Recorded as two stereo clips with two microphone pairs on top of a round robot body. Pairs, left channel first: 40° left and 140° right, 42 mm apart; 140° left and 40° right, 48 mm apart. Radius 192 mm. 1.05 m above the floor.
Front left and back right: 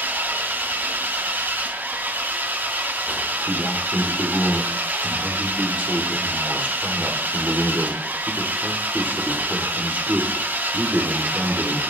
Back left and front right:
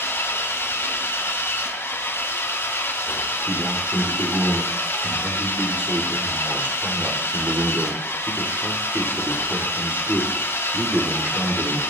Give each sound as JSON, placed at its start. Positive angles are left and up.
{"t": 0.0, "sound": "an engine running", "azimuth_deg": 180, "distance_m": 1.7}
{"t": 3.5, "sound": "a man speaking", "azimuth_deg": -90, "distance_m": 3.5}